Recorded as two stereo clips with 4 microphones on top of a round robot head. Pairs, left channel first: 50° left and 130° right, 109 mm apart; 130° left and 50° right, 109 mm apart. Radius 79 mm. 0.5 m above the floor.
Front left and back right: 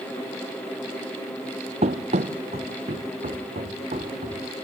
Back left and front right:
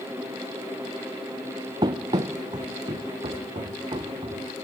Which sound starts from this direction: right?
Running footsteps, at 1.8 s.